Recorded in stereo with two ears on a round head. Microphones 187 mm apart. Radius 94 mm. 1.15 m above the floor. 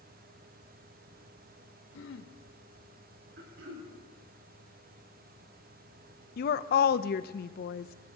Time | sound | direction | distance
1.9 | throat clearing | 60° left (ahead or behind) | 0.9 m
3.4 | throat clearing | 50° right (ahead or behind) | 3 m
6.4 | a woman speaking | 45° left (ahead or behind) | 0.5 m